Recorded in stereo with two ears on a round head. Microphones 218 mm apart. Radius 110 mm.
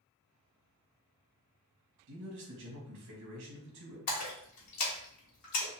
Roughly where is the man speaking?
Right.